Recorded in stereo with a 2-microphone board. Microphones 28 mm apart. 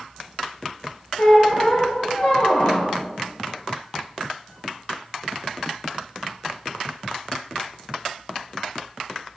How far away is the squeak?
About 1.2 m.